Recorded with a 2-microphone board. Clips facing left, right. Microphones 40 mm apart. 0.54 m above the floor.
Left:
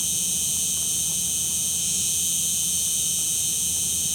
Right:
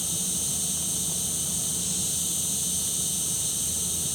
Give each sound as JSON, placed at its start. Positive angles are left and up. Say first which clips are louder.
{"t": 0.0, "sound": "an insect", "louder": "left 3 dB", "side_deg": 80, "distance_m": 1.0}